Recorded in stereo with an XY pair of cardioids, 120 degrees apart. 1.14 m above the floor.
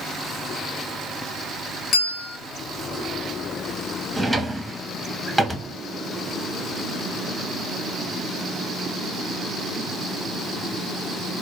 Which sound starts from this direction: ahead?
A drawer, at 4.2 s.